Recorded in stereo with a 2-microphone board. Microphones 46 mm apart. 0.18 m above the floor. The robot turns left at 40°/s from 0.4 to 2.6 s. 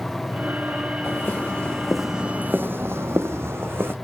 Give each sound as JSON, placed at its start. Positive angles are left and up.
{"t": 1.0, "sound": "footsteps", "side_deg": 50, "distance_m": 1.2}